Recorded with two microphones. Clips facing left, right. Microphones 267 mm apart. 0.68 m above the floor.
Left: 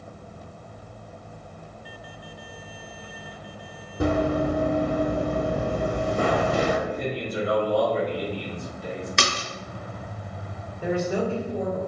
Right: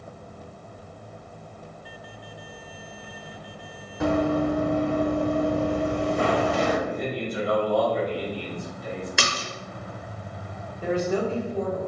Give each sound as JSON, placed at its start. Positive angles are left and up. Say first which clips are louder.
{"t": 4.0, "sound": "running footsteps", "louder": "right 1 dB", "side_deg": 40, "distance_m": 1.8}
{"t": 6.8, "sound": "a man speaking", "louder": "even", "side_deg": 35, "distance_m": 1.8}
{"t": 9.2, "sound": "a splash", "louder": "left 1 dB", "side_deg": -5, "distance_m": 0.8}
{"t": 10.8, "sound": "a man speaking", "louder": "even", "side_deg": 10, "distance_m": 1.4}